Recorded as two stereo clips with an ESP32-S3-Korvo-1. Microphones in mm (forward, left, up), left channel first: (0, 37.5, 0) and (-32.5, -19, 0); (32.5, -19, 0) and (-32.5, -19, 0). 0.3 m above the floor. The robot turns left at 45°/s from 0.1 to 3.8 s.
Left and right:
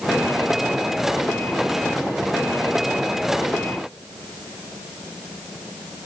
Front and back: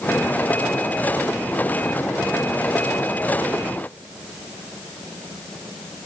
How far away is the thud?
No thud in this recording.